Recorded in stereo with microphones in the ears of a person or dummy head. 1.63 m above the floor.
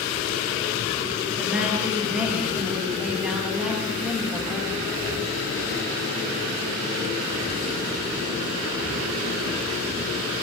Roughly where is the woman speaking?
Centre.